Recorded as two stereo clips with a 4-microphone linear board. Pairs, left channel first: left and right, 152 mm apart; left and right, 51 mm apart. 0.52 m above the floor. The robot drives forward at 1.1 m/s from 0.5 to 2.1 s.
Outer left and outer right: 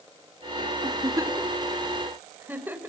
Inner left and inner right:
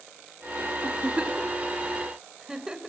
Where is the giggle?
25° right (ahead or behind), 0.9 m; by 2.9 s 10° right (ahead or behind), 2.0 m.